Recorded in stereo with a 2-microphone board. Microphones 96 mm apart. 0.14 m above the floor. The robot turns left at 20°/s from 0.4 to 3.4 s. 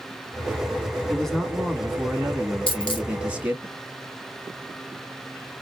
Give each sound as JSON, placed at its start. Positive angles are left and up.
{"t": 1.1, "sound": "a man speaking", "side_deg": 5, "distance_m": 1.0}
{"t": 2.7, "sound": "a dropped coin", "side_deg": 65, "distance_m": 1.5}